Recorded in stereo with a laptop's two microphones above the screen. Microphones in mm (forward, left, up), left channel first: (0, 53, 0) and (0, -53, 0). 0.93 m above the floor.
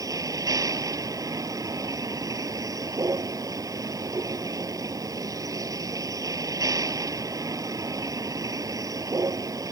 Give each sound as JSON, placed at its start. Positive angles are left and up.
{"t": 0.0, "sound": "a vehicle", "side_deg": -30}